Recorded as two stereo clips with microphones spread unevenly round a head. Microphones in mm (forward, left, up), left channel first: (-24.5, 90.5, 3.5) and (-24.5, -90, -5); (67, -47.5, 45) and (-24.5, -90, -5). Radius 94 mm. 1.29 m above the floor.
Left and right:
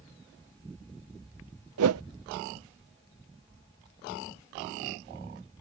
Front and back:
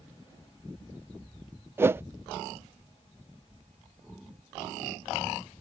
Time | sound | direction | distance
1.8 | a whoosh | 85° right | ?